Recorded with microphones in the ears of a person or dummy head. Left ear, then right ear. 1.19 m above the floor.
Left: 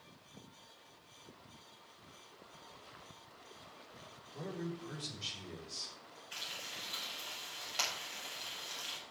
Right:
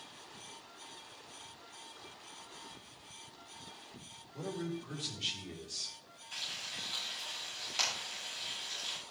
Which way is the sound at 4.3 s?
15° right (ahead or behind).